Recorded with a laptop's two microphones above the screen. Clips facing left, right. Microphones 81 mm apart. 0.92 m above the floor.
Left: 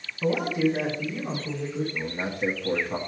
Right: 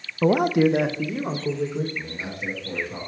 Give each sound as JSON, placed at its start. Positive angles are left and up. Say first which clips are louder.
{"t": 0.2, "sound": "a man speaking", "louder": "right 6 dB", "side_deg": -45, "distance_m": 0.6}
{"t": 1.9, "sound": "a man speaking", "louder": "left 3 dB", "side_deg": 45, "distance_m": 1.5}